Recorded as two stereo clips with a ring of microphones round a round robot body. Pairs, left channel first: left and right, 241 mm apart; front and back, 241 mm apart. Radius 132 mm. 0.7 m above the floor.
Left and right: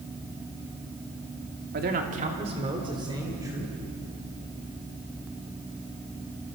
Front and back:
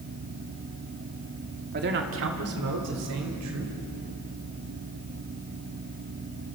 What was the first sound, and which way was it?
A man speaking, 135° right.